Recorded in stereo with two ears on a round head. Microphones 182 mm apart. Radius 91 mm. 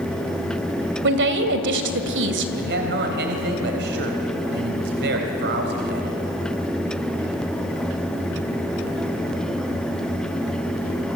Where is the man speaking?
55° right (ahead or behind), 3.5 m.